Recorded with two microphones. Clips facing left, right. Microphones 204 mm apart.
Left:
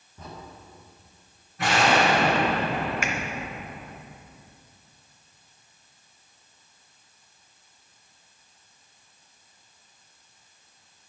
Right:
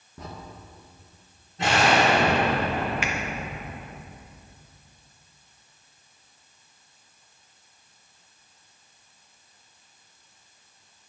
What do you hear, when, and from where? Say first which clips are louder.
0.2 s a crack: right 4 dB; 75° right (ahead or behind), 1.7 m
1.6 s an explosion: right 1 dB; 25° right (ahead or behind), 3.5 m
3.0 s a finger snap: even; 45° left (ahead or behind), 0.9 m